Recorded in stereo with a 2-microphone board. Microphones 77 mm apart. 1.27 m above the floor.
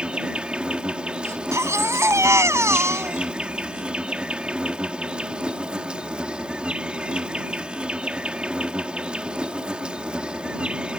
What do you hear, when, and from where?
0.0 s an insect: 15° right (ahead or behind)
1.2 s a baby crying: 40° right (ahead or behind)